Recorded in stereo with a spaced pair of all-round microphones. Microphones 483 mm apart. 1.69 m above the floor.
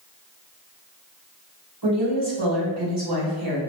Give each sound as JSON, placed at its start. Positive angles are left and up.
{"t": 1.8, "sound": "a woman speaking", "side_deg": -55, "distance_m": 1.5}